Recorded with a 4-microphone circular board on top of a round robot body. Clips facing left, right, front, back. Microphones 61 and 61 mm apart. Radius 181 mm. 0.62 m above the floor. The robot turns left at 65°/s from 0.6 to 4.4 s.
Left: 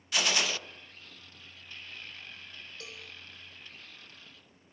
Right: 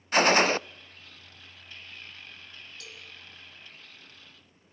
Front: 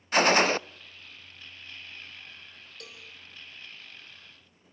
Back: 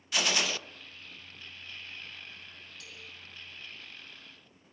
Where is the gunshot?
45° right, 0.5 m.